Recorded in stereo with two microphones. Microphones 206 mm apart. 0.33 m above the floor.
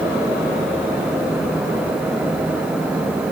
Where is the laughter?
I don't hear laughter.